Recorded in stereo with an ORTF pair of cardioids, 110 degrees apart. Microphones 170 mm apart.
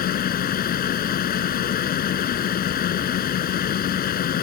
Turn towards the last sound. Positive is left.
turn(degrees=55)